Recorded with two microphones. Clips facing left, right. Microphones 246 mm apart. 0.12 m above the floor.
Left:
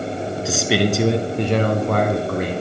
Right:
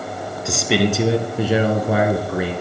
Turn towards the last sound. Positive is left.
turn(degrees=-10)  # may be behind; listen again after turning